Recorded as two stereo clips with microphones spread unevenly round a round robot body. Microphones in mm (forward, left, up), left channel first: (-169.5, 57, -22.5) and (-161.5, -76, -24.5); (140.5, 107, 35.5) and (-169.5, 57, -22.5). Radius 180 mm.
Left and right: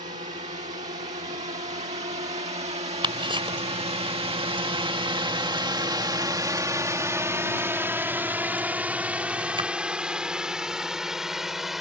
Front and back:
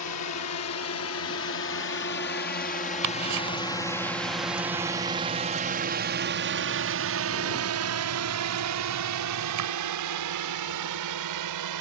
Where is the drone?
35° right; by 11.8 s 175° right.